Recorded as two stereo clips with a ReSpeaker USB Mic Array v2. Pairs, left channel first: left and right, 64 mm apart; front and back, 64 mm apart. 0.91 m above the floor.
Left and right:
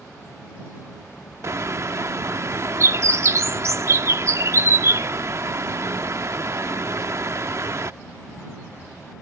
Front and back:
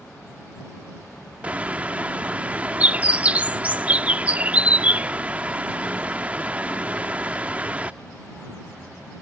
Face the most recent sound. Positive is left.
turn(degrees=-115)